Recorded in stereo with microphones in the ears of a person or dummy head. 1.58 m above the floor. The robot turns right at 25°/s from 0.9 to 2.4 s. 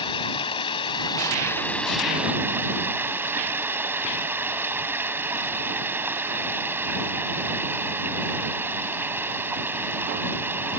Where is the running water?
155° left; by 10.8 s 165° right.